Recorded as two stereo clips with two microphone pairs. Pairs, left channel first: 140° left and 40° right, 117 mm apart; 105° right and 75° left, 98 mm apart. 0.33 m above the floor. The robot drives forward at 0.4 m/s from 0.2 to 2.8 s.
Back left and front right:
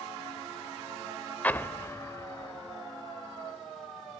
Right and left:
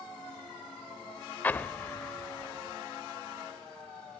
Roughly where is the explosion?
Behind right.